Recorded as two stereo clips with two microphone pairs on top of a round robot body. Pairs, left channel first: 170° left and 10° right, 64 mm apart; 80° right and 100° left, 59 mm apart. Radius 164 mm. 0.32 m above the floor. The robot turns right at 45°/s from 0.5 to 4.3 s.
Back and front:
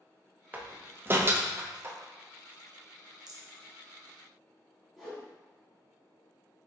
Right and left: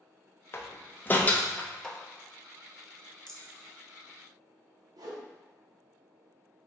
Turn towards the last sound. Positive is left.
turn(degrees=80)